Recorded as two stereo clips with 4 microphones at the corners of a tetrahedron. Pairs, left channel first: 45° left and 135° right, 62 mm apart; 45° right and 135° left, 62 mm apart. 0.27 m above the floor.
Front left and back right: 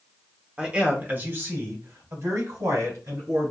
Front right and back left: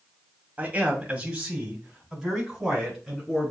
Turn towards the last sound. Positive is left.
turn(degrees=-135)